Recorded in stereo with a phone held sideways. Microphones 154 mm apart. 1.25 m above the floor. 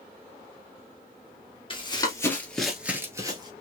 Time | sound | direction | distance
1.7 | running footsteps | 30° left (ahead or behind) | 1.5 m